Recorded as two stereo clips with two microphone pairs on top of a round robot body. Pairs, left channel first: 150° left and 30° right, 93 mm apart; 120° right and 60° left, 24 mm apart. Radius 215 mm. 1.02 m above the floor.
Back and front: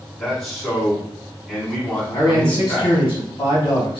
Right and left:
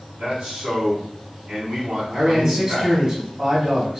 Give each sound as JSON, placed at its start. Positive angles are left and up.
{"t": 0.2, "sound": "a man speaking", "azimuth_deg": 65, "distance_m": 1.9}
{"t": 2.1, "sound": "a man speaking", "azimuth_deg": 105, "distance_m": 1.9}